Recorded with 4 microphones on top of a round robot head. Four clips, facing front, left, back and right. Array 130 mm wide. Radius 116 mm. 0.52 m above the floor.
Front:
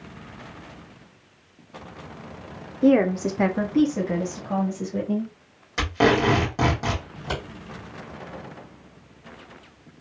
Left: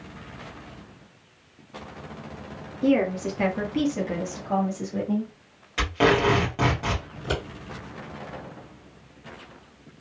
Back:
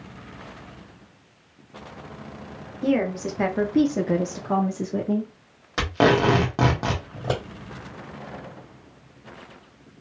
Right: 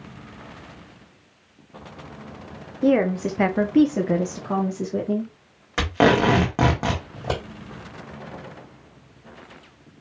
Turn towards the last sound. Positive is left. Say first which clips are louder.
# right 2 dB, back 4 dB
turn(degrees=-140)